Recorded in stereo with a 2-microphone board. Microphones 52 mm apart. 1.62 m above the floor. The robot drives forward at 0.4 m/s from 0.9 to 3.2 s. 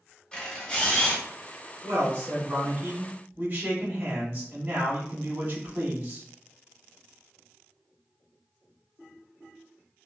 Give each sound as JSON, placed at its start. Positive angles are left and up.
{"t": 0.3, "sound": "a camera shutter", "side_deg": 15, "distance_m": 1.9}
{"t": 1.8, "sound": "a man speaking", "side_deg": -50, "distance_m": 1.2}